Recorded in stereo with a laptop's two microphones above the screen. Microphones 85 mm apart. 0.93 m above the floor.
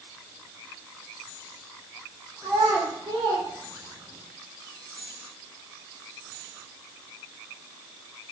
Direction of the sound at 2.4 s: 55° right (ahead or behind).